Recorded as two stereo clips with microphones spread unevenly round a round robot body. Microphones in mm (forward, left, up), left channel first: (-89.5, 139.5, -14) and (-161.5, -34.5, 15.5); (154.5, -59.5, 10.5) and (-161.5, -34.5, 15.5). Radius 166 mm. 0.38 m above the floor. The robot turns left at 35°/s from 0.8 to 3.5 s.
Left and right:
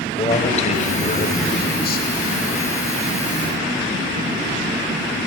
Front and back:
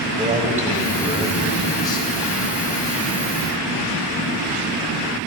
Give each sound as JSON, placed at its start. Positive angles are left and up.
{"t": 0.2, "sound": "a man speaking", "azimuth_deg": 110, "distance_m": 1.5}